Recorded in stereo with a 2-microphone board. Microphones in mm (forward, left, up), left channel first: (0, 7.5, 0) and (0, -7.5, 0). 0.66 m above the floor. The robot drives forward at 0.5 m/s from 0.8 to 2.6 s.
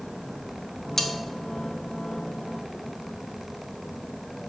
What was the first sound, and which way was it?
Cutlery clinking, 25° left (ahead or behind).